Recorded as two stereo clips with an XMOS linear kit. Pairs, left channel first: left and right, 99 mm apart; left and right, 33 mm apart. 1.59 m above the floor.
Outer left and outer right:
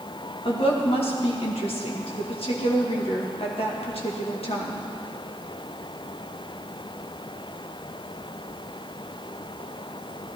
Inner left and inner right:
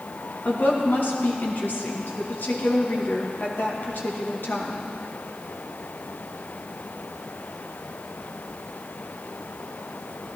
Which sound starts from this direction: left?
A woman speaking, at 0.5 s.